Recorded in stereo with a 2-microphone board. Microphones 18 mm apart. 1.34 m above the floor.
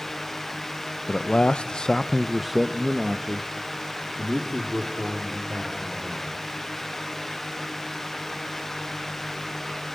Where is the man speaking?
70° left (ahead or behind), 0.9 m; by 6.4 s 35° right (ahead or behind), 4 m.